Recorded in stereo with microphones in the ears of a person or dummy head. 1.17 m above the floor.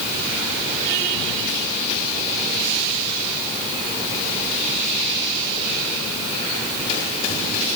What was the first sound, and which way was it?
Only background noise.